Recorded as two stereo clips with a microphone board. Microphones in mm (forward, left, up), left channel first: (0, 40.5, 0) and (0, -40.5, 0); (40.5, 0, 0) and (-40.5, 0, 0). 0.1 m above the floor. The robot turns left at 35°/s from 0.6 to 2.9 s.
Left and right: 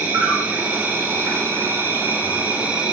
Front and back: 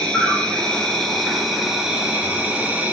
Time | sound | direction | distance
0.0 | an insect | 65° right | 2.5 m